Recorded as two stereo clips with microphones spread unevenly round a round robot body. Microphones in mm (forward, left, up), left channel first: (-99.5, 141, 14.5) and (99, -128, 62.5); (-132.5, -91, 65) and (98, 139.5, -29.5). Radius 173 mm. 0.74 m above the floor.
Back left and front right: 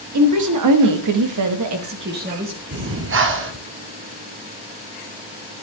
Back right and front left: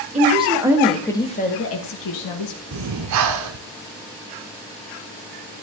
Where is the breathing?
5° left, 1.1 m.